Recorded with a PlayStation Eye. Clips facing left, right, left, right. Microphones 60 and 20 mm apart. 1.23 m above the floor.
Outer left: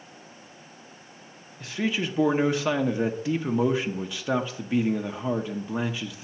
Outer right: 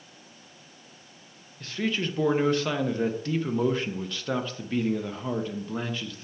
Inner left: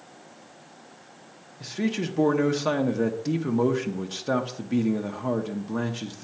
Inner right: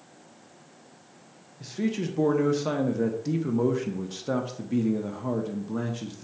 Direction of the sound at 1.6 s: 10° left (ahead or behind).